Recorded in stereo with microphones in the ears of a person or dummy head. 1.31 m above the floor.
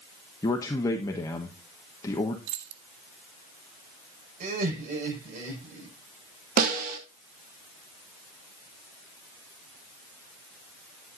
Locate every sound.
0.4 s a man speaking: 20° left (ahead or behind), 1.0 m
2.5 s keys jangling: 75° right (ahead or behind), 1.4 m
4.4 s laughter: 50° right (ahead or behind), 5.5 m
6.6 s a snare drum: 55° right (ahead or behind), 2 m